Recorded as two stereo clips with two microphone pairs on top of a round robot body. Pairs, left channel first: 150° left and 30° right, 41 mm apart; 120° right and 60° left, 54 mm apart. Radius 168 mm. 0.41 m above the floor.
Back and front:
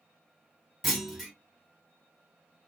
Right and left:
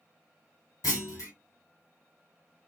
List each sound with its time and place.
0.8 s a clunk: 115° right, 1.5 m